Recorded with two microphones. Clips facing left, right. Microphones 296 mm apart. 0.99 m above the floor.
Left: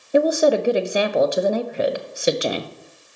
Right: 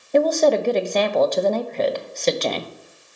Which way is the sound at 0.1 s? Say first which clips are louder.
Even; 10° left (ahead or behind).